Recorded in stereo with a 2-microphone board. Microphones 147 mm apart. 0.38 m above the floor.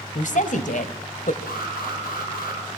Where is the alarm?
85° left, 8 m.